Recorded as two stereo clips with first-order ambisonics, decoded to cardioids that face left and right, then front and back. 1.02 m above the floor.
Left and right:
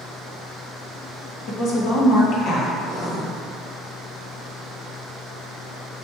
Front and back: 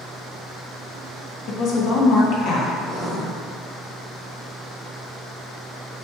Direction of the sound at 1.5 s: 40° left.